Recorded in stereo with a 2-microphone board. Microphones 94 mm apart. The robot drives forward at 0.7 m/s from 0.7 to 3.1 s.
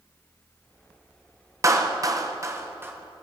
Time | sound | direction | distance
1.6 | a clap | 30° right (ahead or behind) | 0.6 m